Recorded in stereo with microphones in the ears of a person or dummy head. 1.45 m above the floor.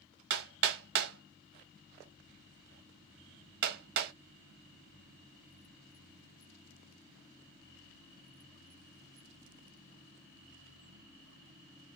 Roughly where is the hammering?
Right.